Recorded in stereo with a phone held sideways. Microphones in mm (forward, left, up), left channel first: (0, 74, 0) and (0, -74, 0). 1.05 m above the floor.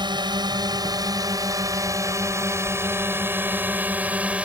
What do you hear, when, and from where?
0.0 s a drone: 30° right (ahead or behind); by 4.5 s 10° right (ahead or behind)